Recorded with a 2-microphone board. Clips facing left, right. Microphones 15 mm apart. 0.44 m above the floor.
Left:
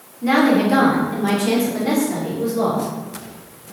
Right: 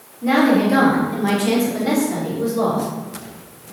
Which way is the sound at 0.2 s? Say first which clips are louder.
Even; 25° left (ahead or behind).